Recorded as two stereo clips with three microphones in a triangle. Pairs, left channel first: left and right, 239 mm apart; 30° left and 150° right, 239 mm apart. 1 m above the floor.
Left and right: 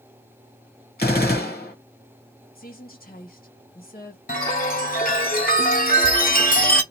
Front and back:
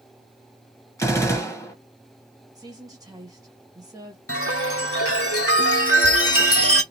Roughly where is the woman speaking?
Behind left.